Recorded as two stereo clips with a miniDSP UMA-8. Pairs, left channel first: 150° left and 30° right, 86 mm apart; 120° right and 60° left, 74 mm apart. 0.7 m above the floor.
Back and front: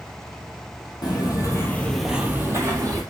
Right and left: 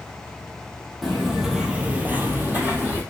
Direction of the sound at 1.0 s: 150° left.